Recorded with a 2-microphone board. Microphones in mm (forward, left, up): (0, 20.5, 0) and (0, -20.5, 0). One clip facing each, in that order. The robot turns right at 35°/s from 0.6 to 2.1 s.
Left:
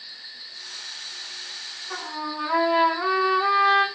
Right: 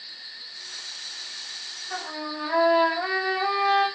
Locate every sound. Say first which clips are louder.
1.9 s a trumpet: left 1 dB; 40° left (ahead or behind), 2.5 m; by 3.9 s 35° left (ahead or behind), 2.5 m